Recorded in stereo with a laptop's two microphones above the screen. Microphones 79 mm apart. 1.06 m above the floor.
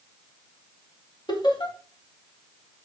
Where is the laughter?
70° left (ahead or behind), 3.5 m.